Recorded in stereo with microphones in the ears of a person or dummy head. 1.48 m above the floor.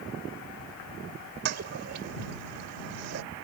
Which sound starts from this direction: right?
A toilet flushing, at 1.4 s.